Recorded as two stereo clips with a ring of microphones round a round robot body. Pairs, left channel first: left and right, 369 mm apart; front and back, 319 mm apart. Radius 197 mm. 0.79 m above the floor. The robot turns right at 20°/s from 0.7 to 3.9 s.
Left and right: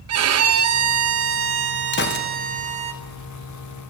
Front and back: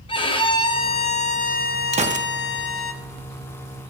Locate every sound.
0.1 s a violin: 65° right, 0.8 m; by 2.9 s 25° right, 0.8 m
1.9 s a gunshot: 125° left, 0.8 m; by 2.3 s 130° left, 0.8 m